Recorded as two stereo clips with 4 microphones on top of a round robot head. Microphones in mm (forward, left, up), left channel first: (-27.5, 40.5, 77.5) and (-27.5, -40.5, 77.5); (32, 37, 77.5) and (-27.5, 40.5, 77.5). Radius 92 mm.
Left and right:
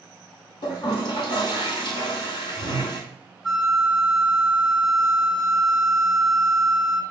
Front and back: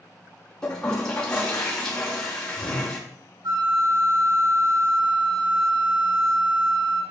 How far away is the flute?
About 6 m.